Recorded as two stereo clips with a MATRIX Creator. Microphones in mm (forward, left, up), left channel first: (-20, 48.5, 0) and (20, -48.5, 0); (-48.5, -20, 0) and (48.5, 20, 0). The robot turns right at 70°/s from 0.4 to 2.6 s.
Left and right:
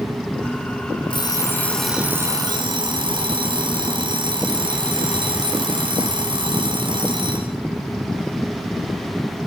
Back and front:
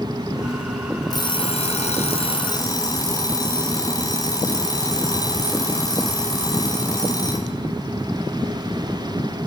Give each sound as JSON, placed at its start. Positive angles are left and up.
{"t": 1.1, "sound": "an alarm clock", "azimuth_deg": 150, "distance_m": 1.4}